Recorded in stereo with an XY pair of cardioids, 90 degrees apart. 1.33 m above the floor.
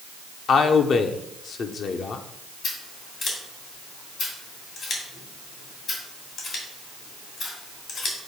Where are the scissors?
70° left, 2.5 m.